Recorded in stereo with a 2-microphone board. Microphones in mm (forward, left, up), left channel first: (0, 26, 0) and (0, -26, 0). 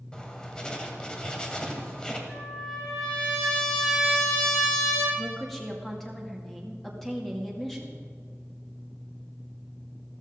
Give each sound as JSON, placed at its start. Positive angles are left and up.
{"t": 0.1, "sound": "writing", "side_deg": 15, "distance_m": 2.0}
{"t": 2.3, "sound": "a trumpet", "side_deg": 5, "distance_m": 7.0}
{"t": 5.2, "sound": "a woman speaking", "side_deg": 5, "distance_m": 2.5}